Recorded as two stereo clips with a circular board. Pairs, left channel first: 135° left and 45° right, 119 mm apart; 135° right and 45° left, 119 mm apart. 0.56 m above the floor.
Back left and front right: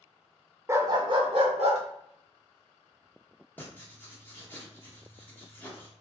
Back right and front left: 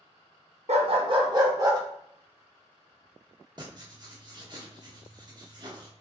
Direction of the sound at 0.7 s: 20° left.